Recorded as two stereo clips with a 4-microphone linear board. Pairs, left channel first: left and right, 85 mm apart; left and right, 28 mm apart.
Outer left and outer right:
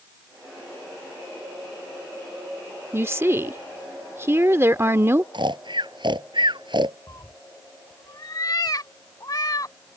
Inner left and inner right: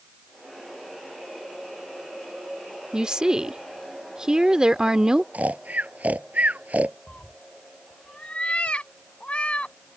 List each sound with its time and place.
2.9 s a woman speaking: 30° right (ahead or behind)
5.3 s snoring: 65° right (ahead or behind)
7.1 s a cat meowing: 50° left (ahead or behind)